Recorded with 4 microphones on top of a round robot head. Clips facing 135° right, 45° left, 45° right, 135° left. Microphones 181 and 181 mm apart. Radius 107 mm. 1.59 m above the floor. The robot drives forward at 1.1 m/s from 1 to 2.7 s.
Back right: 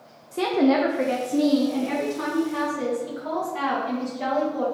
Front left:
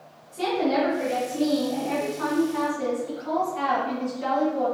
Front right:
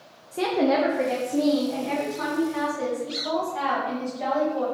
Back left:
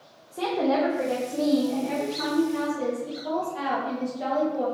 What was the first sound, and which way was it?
A woman speaking, 115° right.